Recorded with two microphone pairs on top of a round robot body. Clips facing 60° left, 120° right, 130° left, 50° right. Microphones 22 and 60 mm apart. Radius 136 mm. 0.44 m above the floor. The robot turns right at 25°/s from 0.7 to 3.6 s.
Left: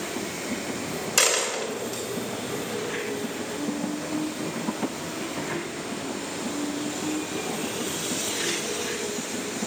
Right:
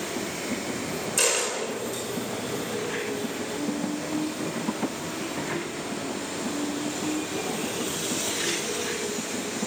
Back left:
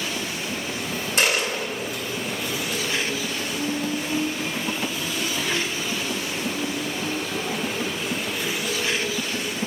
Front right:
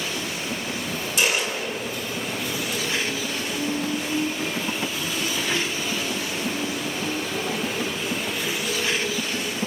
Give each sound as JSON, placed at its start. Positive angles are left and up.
{"t": 1.2, "sound": "a dropped coin", "azimuth_deg": 80, "distance_m": 2.5}